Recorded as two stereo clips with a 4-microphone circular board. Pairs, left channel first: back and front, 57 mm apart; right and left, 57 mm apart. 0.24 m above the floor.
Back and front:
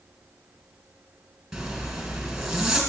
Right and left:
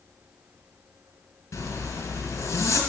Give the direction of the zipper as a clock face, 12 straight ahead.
3 o'clock.